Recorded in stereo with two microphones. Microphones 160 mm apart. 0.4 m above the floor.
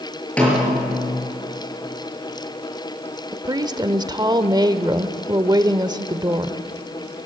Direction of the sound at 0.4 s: 10° left (ahead or behind).